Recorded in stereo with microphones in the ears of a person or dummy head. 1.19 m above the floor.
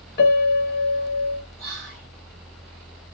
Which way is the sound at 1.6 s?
15° left (ahead or behind).